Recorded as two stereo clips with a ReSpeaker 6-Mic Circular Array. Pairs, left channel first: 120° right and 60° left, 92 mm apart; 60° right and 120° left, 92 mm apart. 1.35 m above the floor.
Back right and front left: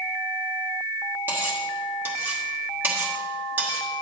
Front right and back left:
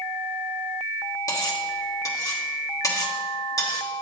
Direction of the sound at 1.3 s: 10° right.